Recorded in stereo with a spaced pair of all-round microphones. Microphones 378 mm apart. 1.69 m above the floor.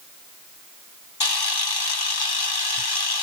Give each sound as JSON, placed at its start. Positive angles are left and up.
{"t": 1.2, "sound": "a camera shutter", "side_deg": 75, "distance_m": 0.8}